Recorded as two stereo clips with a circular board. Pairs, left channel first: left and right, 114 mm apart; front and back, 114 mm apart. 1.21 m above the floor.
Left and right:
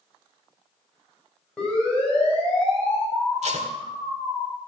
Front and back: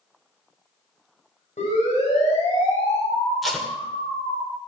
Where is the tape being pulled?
90° right, 1.9 m.